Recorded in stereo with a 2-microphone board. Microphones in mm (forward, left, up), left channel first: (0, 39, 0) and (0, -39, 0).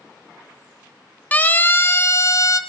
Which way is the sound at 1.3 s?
20° left (ahead or behind).